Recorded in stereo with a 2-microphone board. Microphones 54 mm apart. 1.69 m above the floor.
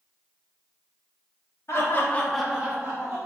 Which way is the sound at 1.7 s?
55° left (ahead or behind).